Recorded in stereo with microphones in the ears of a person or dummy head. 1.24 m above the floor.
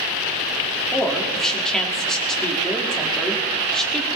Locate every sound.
0.9 s a woman speaking: 5° left (ahead or behind), 2 m